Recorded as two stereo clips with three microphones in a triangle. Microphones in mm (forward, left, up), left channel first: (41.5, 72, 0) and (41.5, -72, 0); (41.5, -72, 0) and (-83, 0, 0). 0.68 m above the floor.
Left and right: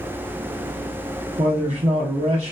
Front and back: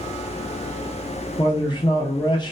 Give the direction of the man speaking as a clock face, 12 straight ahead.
3 o'clock.